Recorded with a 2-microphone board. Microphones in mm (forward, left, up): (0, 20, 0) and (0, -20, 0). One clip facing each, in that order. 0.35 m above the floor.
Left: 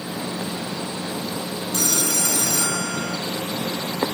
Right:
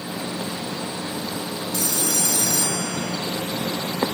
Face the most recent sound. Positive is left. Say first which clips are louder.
# left 2 dB
turn(degrees=70)  # may be behind; listen again after turning